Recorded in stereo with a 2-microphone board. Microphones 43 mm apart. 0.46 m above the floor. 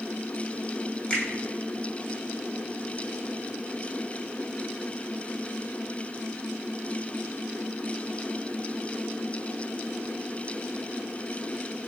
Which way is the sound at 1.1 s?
25° left (ahead or behind).